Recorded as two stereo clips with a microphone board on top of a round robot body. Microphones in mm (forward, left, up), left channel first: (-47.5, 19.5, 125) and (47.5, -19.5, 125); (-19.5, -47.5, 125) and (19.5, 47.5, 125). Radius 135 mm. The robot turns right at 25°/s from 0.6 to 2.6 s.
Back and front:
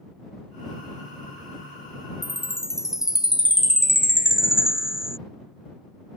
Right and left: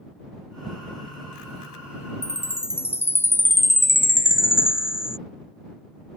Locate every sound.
2.2 s a chime: 110° right; by 5.2 s 100° right